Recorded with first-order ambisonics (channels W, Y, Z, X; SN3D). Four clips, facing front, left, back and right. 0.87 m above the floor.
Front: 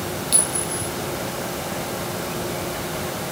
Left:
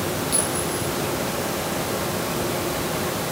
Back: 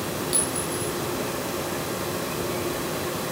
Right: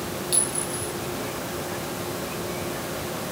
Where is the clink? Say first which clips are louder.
Left 4 dB, front 2 dB; 5° right, 6 m.